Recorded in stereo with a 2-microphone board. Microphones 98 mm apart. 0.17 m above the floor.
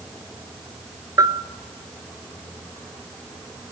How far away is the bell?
About 1.2 m.